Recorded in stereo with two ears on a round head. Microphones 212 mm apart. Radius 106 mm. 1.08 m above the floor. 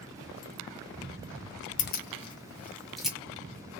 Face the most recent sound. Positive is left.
turn(degrees=-5)  # may be behind; listen again after turning